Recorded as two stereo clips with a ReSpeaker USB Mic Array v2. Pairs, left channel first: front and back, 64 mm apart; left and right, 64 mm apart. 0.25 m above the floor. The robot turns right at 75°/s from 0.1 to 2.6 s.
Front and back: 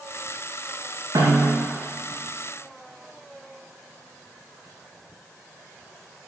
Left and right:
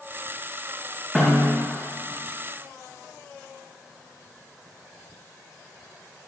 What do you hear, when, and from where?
1.1 s a snare drum: 175° right, 6.5 m; by 1.7 s 140° right, 6.5 m